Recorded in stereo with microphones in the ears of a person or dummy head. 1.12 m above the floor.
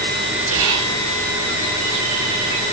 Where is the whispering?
75° right (ahead or behind), 1.4 m.